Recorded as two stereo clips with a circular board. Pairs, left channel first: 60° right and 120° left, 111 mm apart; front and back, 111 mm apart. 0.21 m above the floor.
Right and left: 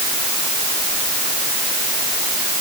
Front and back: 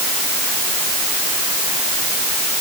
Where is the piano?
I don't hear a piano.